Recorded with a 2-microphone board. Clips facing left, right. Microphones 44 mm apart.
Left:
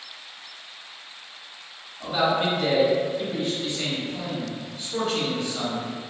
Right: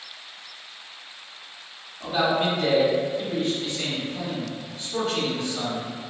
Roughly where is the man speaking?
Centre.